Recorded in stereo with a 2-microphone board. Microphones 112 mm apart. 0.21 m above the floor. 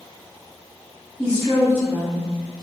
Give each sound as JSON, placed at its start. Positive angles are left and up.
{"t": 1.2, "sound": "a woman speaking", "side_deg": 30, "distance_m": 1.7}